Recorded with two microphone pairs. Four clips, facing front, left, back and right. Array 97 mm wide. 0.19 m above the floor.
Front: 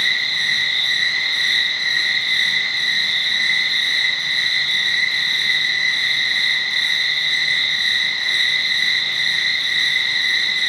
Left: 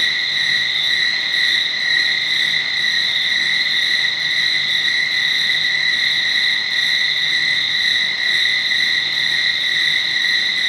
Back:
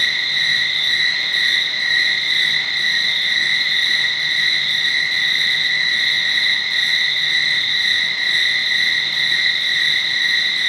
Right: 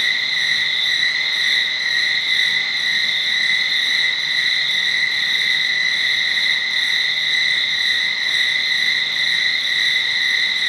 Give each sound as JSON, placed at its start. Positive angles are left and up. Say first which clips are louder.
{"t": 0.0, "sound": "an insect", "louder": "even, back 1 dB", "azimuth_deg": 110, "distance_m": 4.5}